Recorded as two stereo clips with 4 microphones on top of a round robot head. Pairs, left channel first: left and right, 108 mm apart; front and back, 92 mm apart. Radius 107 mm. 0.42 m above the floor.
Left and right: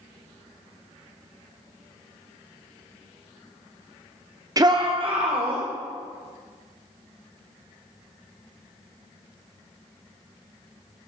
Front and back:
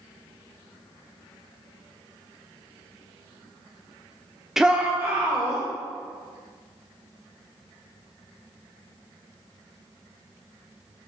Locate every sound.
4.6 s a shout: 100° right, 0.9 m; by 5.6 s 115° right, 2 m